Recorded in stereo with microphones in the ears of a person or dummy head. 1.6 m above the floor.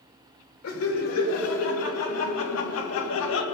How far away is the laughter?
About 3 m.